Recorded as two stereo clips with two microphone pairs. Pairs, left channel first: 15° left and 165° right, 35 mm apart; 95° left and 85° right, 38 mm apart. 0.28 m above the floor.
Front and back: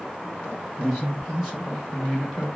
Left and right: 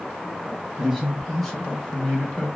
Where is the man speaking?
120° right, 1.5 m; by 2.5 s 105° left, 1.6 m.